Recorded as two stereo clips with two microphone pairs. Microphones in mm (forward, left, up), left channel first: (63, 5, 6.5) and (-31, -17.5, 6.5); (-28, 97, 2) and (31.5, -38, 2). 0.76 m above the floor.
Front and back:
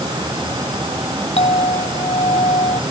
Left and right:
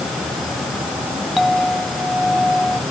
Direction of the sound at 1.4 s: 25° left.